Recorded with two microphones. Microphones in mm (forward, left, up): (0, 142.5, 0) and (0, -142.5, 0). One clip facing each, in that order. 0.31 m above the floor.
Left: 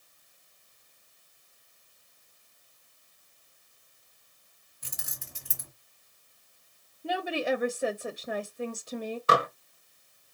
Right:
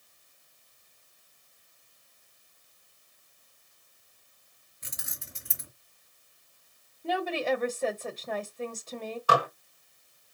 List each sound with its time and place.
4.8 s keys jangling: 25° right (ahead or behind), 1.5 m
7.0 s a woman speaking: 10° left (ahead or behind), 1.0 m
9.3 s dishes clattering: 25° left (ahead or behind), 1.0 m